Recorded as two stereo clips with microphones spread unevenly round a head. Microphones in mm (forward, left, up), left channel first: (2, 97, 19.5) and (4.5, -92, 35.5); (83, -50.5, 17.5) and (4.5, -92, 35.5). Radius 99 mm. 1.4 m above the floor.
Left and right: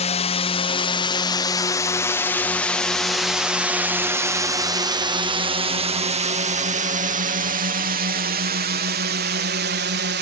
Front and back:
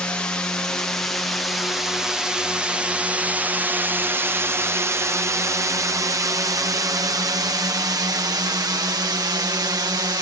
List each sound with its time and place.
0.0 s a drone: 85° left; by 10.2 s 110° right